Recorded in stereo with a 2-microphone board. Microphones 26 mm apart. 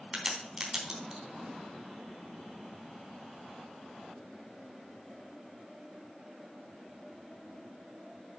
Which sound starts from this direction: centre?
A crack, at 0.1 s.